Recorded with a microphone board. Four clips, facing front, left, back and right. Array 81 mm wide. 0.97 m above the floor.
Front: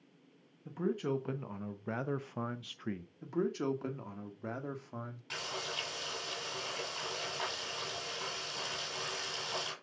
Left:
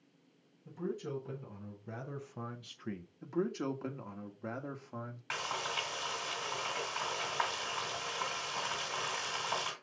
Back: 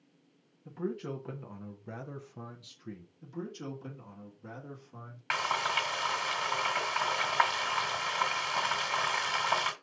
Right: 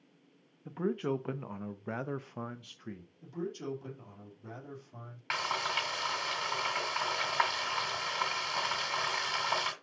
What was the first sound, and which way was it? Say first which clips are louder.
A man speaking: right 6 dB, front 2 dB; 80° right.